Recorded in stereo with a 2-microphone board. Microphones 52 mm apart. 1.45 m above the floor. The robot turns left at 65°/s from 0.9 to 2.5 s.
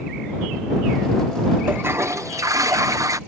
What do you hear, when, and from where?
1.7 s a toilet flushing: 35° right; by 3.2 s 90° right